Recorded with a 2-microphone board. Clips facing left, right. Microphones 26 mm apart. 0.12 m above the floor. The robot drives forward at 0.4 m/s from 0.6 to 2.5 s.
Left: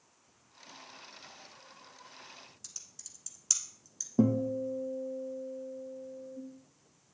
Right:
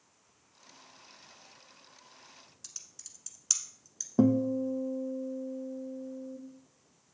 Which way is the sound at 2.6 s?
10° right (ahead or behind).